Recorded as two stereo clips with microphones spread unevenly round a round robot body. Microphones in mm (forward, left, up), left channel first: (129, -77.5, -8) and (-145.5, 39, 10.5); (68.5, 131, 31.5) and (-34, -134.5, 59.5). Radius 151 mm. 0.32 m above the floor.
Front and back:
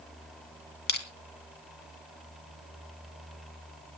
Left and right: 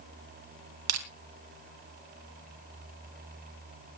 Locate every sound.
0.9 s crushing: 75° right, 2.5 m